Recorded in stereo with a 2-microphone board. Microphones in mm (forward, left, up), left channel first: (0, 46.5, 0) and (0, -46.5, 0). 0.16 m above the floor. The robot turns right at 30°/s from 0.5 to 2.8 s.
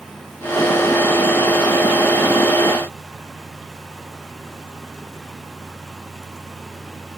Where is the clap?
No clap in this recording.